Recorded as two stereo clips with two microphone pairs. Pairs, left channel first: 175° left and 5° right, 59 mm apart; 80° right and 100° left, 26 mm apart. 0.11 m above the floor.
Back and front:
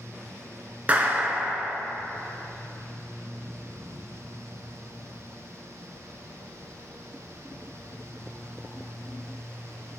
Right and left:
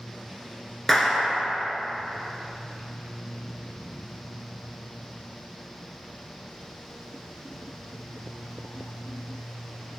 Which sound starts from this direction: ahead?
A clap, at 0.9 s.